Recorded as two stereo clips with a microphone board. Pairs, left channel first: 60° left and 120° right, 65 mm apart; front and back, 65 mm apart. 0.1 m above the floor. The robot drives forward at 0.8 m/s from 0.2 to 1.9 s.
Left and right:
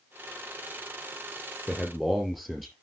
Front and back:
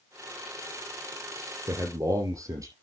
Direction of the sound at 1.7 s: 155° left.